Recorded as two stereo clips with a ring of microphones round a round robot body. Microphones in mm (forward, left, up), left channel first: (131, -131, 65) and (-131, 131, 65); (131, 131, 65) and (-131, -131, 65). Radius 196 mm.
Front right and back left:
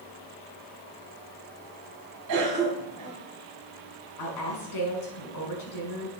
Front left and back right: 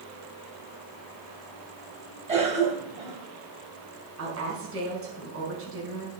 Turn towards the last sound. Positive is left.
turn(degrees=-80)